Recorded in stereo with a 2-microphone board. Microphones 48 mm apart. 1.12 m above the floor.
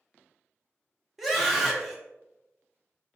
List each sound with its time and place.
1.2 s a scream: centre (ahead or behind), 0.7 m